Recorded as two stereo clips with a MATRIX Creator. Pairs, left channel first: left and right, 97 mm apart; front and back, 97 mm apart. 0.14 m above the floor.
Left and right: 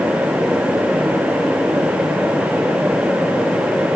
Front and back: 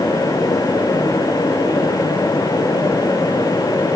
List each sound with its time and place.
Only background noise.